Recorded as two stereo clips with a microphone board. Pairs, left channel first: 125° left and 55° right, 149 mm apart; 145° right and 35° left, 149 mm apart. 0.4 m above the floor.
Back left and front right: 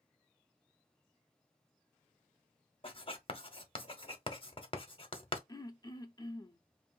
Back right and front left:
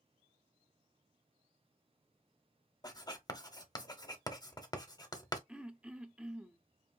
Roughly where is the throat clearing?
Left.